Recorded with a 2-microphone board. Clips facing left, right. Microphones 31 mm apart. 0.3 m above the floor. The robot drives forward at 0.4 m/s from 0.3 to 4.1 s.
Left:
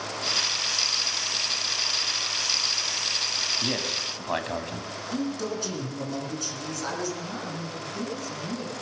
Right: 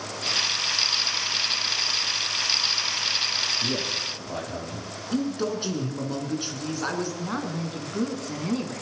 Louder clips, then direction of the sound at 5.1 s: Right 4 dB; 25° right (ahead or behind).